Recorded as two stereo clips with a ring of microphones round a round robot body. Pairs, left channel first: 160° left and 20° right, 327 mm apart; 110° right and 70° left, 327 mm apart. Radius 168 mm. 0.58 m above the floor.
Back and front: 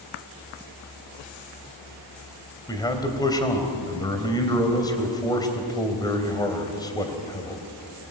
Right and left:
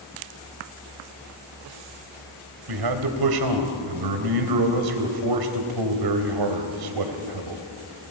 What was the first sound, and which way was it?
A man speaking, 80° left.